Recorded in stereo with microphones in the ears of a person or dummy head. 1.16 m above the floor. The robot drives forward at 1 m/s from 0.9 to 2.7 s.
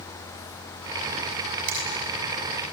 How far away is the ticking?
No ticking in this recording.